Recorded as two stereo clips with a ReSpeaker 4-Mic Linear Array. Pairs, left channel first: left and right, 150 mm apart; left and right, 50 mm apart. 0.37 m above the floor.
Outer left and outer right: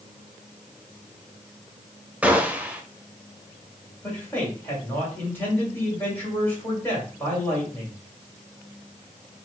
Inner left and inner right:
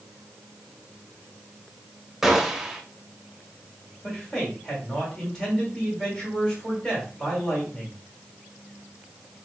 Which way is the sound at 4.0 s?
15° left (ahead or behind).